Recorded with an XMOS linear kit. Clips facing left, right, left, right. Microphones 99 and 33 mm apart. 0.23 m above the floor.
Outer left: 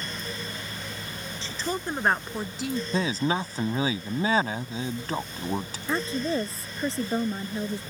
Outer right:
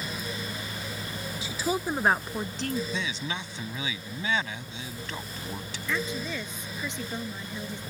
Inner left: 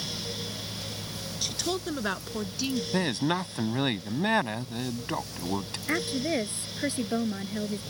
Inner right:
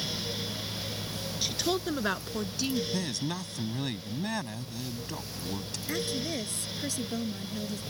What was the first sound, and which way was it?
A woman speaking, 10° right (ahead or behind).